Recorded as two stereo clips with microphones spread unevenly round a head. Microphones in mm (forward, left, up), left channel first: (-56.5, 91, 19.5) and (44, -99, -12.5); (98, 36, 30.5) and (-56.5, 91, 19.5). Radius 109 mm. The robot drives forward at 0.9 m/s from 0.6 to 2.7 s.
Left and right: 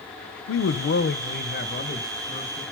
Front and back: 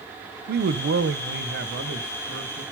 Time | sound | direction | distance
0.5 | a man speaking | 155° left | 0.6 m